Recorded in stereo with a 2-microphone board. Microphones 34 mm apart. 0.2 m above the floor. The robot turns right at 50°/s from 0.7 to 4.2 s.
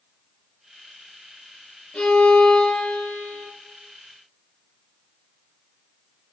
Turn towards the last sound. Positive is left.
turn(degrees=150)